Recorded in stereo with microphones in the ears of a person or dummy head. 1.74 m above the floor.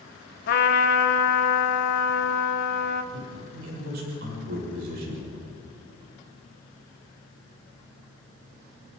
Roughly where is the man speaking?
Right.